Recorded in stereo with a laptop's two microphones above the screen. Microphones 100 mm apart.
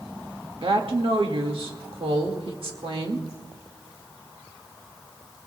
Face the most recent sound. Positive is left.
turn(degrees=-65)  # may be behind; listen again after turning